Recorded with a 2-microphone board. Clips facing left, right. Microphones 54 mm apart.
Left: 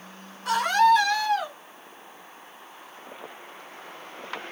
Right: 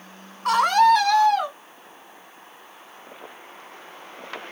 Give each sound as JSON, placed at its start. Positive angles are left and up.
{"t": 0.5, "sound": "a scream", "side_deg": -55, "distance_m": 2.5}